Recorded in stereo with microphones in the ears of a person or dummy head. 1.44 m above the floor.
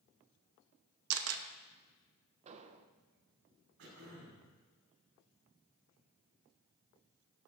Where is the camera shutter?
85° right, 1.0 m.